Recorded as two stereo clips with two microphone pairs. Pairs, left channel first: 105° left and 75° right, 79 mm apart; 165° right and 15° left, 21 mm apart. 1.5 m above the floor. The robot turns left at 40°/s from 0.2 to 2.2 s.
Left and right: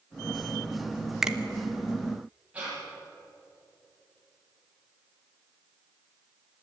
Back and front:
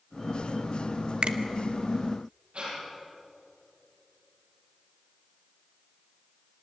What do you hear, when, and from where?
1.2 s a finger snap: 10° left, 1.1 m; by 1.4 s straight ahead, 1.1 m
2.5 s breathing: straight ahead, 7.5 m